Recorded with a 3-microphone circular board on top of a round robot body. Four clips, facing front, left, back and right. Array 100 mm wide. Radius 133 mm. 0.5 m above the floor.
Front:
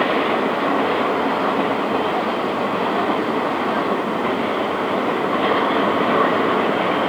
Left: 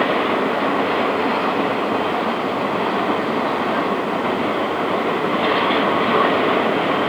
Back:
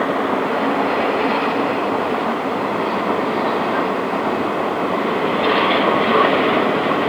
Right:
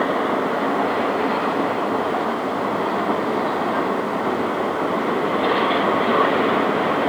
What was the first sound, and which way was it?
Only background noise.